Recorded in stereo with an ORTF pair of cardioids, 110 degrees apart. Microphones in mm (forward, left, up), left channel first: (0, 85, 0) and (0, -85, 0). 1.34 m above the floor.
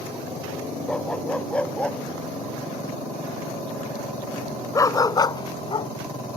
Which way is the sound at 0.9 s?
5° left.